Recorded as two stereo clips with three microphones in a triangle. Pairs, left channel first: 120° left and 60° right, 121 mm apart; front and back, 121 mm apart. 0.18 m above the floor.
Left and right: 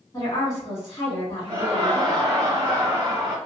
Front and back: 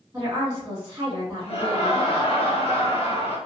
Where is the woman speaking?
145° left, 1.5 m.